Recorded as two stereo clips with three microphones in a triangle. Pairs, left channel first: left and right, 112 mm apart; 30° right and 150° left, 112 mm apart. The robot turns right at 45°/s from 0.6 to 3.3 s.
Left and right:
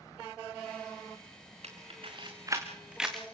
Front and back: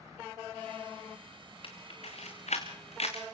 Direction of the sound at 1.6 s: 70° right.